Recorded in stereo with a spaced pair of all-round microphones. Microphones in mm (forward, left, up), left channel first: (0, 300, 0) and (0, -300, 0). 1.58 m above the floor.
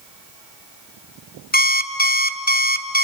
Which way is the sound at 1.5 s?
15° left (ahead or behind).